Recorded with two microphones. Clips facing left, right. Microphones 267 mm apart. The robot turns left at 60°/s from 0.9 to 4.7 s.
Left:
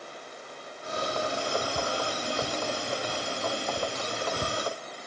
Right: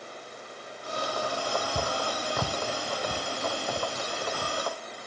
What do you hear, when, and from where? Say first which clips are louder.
1.8 s footsteps: even; 30° right (ahead or behind); by 4.6 s 40° left (ahead or behind)